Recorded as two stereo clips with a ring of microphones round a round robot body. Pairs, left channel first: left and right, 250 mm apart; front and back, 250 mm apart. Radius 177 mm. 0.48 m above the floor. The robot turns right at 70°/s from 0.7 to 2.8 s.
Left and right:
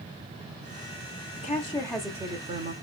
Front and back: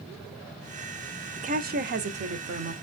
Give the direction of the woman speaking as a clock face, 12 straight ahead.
8 o'clock.